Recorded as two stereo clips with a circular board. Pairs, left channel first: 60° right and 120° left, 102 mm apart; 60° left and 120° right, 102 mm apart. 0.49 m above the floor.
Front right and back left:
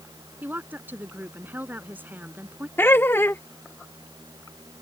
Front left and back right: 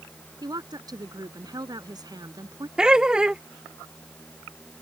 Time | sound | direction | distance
0.4 | a woman speaking | 170° right | ?
2.8 | laughter | 50° right | ?